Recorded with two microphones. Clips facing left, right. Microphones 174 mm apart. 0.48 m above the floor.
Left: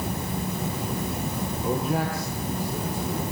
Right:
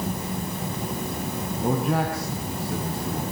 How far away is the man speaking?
About 4.5 m.